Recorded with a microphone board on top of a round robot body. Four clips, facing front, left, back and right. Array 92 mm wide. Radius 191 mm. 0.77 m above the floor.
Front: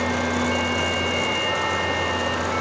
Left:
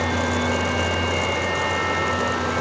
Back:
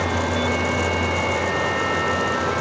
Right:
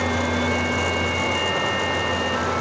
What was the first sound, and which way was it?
Only background noise.